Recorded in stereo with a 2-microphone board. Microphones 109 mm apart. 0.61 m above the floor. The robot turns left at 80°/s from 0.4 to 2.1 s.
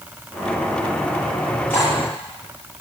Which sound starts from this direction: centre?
Cutlery clinking, at 1.7 s.